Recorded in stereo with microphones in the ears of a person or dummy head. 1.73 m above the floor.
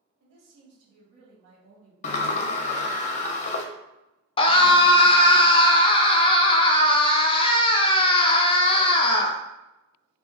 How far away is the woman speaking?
About 1.9 m.